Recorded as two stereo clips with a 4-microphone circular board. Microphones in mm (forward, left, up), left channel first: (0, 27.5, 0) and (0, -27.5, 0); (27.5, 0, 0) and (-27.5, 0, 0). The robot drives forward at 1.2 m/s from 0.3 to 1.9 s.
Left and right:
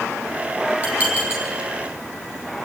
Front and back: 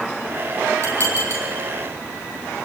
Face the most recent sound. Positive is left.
turn(degrees=-160)